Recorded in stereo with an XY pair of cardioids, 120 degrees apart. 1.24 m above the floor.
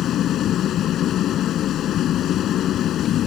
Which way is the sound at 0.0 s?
65° left.